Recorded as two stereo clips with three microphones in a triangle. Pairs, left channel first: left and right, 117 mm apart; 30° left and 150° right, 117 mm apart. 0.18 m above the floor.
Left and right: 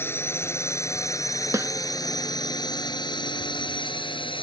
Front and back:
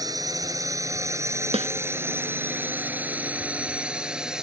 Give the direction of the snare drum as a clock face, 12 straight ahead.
5 o'clock.